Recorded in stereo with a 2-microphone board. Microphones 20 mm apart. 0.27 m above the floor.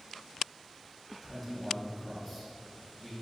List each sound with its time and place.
1.2 s a man speaking: 10° left (ahead or behind), 2 m